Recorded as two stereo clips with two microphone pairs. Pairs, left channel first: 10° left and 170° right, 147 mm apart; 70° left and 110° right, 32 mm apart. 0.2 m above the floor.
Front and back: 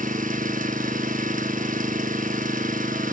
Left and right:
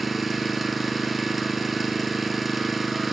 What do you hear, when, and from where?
0.0 s an engine running: 165° left, 1.0 m